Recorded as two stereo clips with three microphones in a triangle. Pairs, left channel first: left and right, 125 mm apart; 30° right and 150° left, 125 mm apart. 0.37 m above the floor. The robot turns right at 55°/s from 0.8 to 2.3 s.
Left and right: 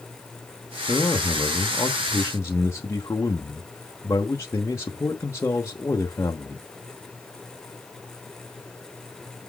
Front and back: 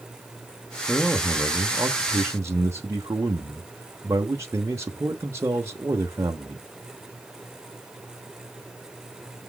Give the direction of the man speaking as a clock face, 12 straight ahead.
11 o'clock.